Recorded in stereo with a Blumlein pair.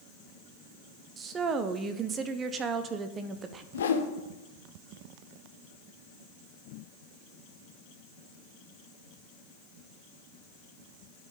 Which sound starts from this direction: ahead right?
A woman speaking, at 1.2 s.